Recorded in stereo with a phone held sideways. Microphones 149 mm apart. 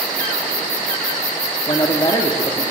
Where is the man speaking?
30° left (ahead or behind), 1.6 m.